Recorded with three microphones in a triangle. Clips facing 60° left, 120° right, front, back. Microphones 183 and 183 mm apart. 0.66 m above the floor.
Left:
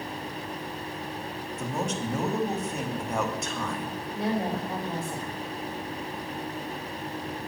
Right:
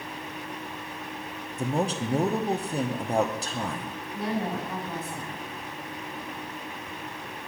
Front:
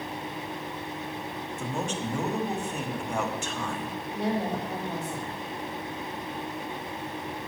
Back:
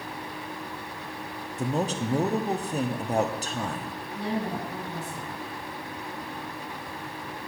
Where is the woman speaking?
Straight ahead, 3.5 m.